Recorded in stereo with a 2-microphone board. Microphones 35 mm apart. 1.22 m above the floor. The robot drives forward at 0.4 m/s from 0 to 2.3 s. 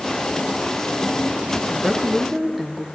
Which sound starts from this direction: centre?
A woman speaking, at 1.7 s.